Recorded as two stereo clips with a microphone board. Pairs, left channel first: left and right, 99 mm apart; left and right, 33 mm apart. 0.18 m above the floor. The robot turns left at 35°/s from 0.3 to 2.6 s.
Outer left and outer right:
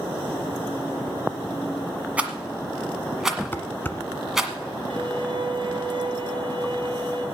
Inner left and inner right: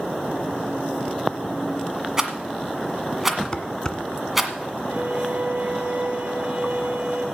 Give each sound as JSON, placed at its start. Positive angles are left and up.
{"t": 2.2, "sound": "a rattle", "side_deg": -15, "distance_m": 1.5}
{"t": 3.5, "sound": "dishes clattering", "side_deg": 20, "distance_m": 1.0}
{"t": 4.9, "sound": "a violin", "side_deg": -55, "distance_m": 2.5}